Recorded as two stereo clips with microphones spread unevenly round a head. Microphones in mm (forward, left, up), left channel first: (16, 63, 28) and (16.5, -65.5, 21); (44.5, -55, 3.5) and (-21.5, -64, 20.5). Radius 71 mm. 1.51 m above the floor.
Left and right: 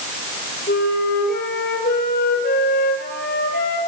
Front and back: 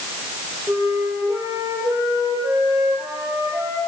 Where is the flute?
115° left, 7.5 m.